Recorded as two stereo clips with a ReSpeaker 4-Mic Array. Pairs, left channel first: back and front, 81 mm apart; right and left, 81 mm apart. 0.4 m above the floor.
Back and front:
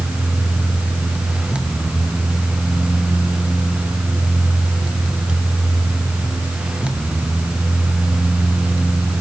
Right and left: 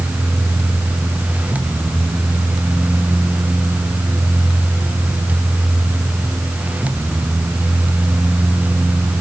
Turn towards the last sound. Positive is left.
No sound to turn to.